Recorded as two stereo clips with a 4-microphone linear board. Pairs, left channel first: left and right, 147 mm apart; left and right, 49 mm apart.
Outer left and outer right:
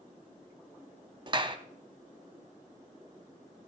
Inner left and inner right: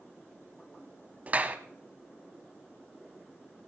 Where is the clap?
35° right (ahead or behind), 1.1 m.